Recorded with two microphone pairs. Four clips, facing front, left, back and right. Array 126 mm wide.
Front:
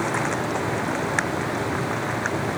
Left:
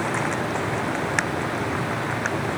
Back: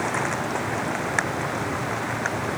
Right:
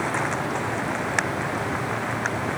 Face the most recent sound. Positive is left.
No sound to turn to.